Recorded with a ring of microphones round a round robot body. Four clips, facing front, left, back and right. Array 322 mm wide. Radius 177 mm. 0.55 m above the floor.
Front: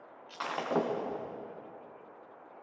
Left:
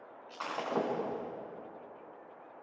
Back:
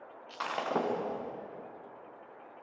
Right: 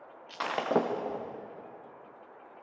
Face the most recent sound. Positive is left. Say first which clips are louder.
# right 6 dB, front 1 dB
turn(degrees=-90)